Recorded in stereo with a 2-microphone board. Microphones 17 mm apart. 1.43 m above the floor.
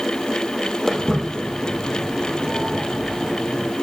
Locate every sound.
0.9 s footsteps: 25° left (ahead or behind), 2.5 m; by 3.7 s 30° right (ahead or behind), 2.5 m